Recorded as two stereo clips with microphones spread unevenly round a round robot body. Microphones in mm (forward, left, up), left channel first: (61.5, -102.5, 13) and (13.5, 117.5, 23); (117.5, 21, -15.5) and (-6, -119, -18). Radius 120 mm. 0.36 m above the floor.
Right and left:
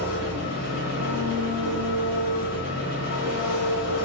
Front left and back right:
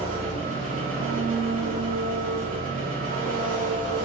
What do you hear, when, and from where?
0.0 s an engine running: 100° right, 1.2 m